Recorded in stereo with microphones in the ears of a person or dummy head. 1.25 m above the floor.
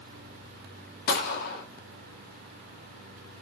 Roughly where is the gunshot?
Left.